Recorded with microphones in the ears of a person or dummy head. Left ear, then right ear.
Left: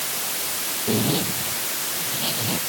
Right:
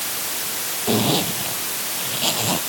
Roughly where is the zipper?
Right.